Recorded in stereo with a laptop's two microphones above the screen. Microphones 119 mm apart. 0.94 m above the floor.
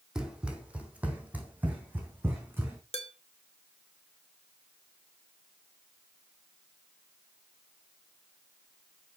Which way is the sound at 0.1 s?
5° right (ahead or behind).